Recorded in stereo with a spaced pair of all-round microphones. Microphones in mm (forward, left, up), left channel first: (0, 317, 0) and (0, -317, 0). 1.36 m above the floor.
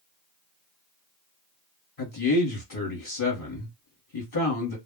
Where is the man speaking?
50° left (ahead or behind), 1.1 m.